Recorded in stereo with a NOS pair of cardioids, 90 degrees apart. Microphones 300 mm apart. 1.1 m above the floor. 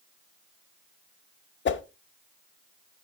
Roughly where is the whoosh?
Ahead left.